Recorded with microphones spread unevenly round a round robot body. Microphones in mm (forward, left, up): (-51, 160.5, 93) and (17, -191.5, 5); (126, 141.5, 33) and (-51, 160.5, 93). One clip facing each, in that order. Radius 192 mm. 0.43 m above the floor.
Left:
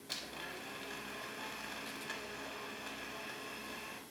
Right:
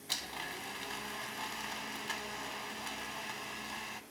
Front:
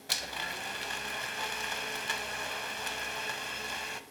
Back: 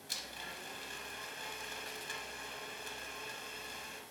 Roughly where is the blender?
Ahead.